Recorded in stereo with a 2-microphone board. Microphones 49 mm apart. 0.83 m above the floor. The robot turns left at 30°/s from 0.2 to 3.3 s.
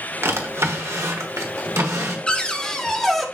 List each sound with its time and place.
0.2 s a drawer: 60° right, 1.2 m; by 2.2 s 115° right, 1.2 m
2.3 s a cupboard door: 20° left (ahead or behind), 0.7 m; by 3.2 s centre (ahead or behind), 0.7 m